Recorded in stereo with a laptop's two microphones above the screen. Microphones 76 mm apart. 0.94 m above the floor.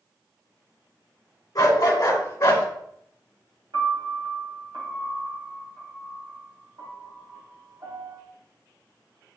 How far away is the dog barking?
About 2.0 m.